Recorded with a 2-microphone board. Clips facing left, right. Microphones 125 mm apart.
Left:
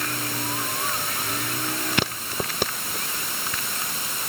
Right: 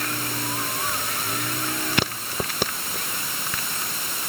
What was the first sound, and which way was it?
Only background noise.